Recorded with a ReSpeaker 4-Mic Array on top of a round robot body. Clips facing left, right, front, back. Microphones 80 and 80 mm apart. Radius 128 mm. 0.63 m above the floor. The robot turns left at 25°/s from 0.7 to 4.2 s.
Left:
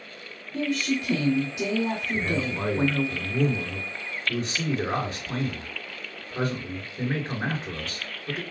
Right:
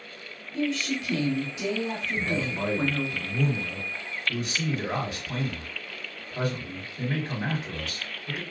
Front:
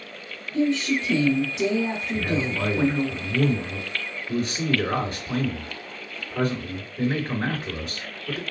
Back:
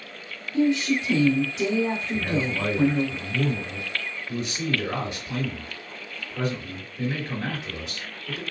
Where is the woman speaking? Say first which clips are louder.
Left 2 dB, back 1 dB; 110° left, 2.5 m; by 3.1 s 50° left, 2.5 m.